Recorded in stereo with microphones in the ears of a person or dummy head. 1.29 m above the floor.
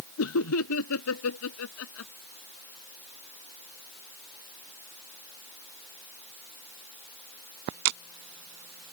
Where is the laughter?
75° left (ahead or behind).